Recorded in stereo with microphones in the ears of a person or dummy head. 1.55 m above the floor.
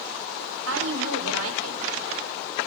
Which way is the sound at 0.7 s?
85° right.